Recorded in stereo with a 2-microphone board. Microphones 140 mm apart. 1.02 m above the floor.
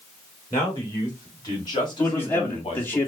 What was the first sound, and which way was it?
A man speaking, 20° left (ahead or behind).